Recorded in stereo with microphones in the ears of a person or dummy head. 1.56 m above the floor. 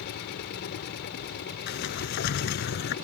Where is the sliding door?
55° left (ahead or behind).